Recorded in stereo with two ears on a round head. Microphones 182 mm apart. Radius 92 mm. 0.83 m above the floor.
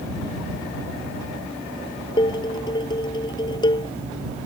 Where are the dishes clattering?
20° left (ahead or behind).